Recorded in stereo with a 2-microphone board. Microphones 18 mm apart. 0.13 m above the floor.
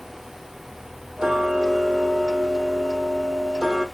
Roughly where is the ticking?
Right.